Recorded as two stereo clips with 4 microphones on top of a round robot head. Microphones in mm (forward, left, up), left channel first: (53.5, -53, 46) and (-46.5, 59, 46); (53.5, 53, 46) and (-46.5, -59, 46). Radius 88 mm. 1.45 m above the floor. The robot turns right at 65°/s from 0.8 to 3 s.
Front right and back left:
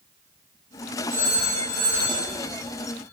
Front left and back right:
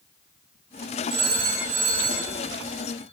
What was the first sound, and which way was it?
A phone ringing, 125° right.